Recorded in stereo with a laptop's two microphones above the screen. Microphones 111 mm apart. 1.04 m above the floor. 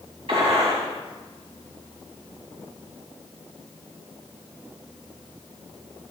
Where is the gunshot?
55° right (ahead or behind), 3 m.